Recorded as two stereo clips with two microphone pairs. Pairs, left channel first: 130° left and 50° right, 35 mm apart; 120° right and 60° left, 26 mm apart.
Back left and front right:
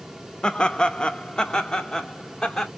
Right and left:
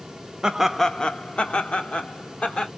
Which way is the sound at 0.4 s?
85° left.